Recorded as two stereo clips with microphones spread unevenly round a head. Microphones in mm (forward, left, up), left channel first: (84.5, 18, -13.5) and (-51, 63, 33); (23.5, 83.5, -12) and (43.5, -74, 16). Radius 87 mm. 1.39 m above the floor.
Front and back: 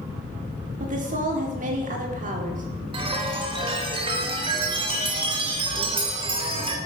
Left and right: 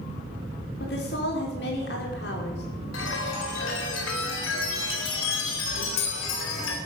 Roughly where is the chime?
Left.